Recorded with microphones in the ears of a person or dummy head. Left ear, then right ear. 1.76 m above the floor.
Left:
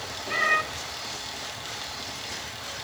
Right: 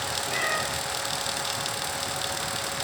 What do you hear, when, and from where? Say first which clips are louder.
0.3 s a cat meowing: left 6 dB; 60° left (ahead or behind), 2 m